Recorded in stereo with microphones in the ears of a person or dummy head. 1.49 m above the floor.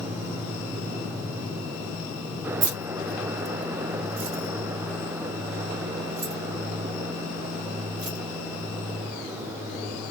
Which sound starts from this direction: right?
Keys jangling, at 2.6 s.